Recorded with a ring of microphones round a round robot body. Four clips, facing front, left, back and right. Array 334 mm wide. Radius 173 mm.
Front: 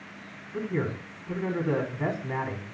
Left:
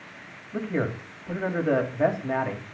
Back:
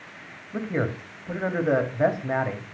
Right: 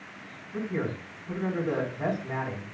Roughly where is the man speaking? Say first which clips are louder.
Left 3 dB, back 3 dB; behind left.